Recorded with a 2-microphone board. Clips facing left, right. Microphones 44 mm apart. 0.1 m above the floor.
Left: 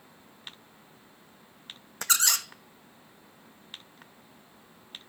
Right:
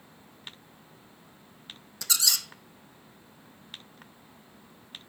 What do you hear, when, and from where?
2.0 s a squeak: 50° left (ahead or behind), 0.6 m